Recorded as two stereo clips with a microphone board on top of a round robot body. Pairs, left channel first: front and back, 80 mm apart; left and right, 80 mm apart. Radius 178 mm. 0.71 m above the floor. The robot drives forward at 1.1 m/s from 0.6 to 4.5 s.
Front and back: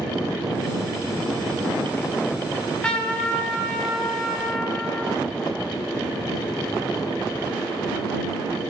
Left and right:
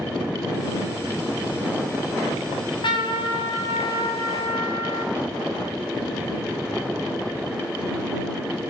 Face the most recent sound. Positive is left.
turn(degrees=90)